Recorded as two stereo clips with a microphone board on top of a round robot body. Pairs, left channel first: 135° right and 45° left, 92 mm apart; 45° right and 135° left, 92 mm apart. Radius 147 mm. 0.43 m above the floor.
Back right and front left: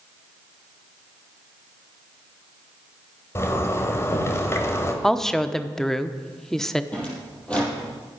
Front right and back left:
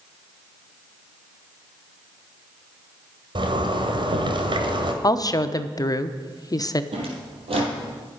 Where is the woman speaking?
50° right, 1.0 m.